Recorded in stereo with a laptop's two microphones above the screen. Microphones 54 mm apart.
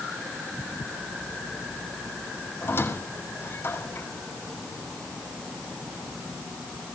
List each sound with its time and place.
2.6 s a squeak: 45° left (ahead or behind), 5 m